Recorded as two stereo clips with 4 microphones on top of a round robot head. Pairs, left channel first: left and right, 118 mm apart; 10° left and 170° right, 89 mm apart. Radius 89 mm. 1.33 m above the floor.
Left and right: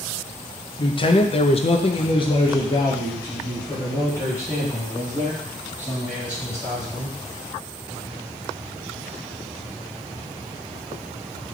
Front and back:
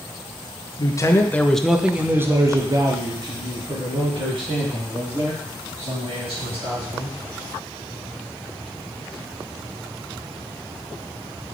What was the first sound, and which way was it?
A man speaking, 50° left.